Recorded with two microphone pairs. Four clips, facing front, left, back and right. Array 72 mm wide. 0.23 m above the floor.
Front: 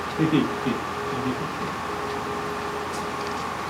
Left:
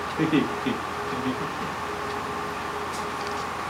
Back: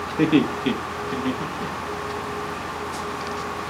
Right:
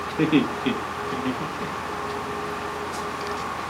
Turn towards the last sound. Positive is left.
turn(degrees=-105)